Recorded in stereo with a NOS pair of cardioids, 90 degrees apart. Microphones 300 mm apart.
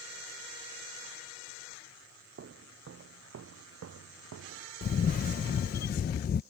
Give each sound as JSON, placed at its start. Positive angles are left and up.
{"t": 2.4, "sound": "footsteps", "azimuth_deg": -45}
{"t": 4.8, "sound": "a camera shutter", "azimuth_deg": 30}